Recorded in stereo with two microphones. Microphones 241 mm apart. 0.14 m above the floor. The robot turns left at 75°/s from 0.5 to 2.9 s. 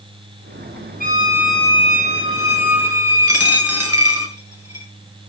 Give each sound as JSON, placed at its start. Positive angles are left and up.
{"t": 1.0, "sound": "a violin", "azimuth_deg": -140, "distance_m": 2.0}
{"t": 3.3, "sound": "a dropped coin", "side_deg": 85, "distance_m": 3.5}